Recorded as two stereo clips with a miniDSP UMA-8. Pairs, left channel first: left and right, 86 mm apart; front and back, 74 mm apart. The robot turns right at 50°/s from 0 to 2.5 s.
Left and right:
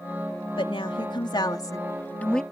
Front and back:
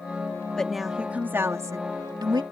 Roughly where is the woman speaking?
Left.